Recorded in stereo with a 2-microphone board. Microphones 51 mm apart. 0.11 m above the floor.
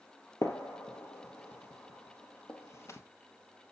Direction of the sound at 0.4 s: 60° left (ahead or behind).